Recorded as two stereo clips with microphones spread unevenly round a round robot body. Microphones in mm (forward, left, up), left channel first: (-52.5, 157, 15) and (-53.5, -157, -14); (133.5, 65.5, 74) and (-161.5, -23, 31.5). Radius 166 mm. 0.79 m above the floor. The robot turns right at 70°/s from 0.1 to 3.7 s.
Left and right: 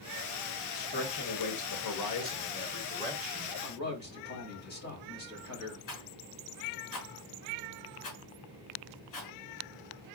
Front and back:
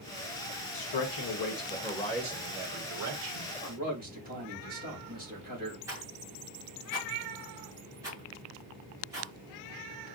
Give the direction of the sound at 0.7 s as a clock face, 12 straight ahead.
12 o'clock.